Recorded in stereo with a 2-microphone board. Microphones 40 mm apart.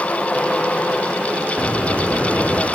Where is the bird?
40° left (ahead or behind), 4.5 m.